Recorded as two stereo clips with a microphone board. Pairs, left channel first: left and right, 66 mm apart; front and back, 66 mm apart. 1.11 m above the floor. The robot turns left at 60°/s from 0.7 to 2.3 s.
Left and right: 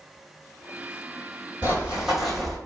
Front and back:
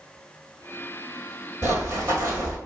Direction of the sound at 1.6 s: 135° right.